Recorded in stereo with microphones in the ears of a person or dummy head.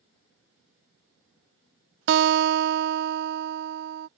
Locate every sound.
2.1 s a guitar: 60° right (ahead or behind)